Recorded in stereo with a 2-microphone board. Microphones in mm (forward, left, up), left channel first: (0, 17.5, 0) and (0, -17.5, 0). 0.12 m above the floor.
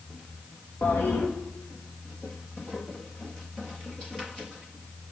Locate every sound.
0.8 s a toilet flushing: 75° left (ahead or behind), 5 m